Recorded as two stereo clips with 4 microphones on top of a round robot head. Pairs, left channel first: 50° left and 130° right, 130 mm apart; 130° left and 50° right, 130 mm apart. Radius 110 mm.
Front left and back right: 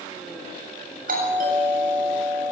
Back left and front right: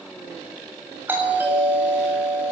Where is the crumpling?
No crumpling in this recording.